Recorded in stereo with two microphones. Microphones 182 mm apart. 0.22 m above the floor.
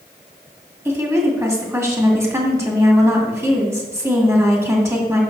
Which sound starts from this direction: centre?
A woman speaking, at 0.8 s.